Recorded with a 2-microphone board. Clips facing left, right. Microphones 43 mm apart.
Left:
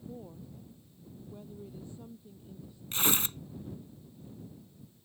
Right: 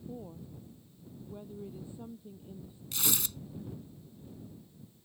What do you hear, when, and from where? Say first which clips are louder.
0.1 s a woman speaking: right 2 dB; 5° right (ahead or behind); by 2.8 s 20° right (ahead or behind)
2.9 s tearing paper: left 4 dB; 40° left (ahead or behind)